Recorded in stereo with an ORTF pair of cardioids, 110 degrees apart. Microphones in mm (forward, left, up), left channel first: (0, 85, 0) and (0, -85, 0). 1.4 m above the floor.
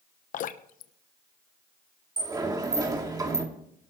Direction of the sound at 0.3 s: 55° left.